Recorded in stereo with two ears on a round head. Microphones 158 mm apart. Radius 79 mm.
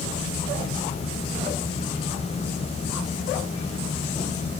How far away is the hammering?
I don't hear hammering.